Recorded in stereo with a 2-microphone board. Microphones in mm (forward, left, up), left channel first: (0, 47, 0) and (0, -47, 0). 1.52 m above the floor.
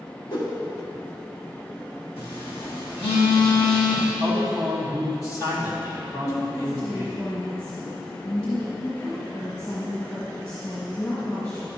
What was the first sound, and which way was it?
A whoosh, 55° left (ahead or behind).